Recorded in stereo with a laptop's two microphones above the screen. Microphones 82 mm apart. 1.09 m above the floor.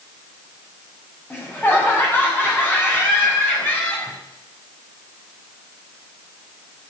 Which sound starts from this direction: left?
Laughter, at 1.3 s.